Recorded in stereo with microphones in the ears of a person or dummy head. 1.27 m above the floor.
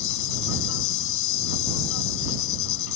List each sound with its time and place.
0.0 s an insect: 75° left (ahead or behind)